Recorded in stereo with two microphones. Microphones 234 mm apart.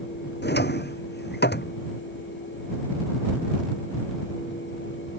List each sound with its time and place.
0.4 s a drawer: 50° left (ahead or behind)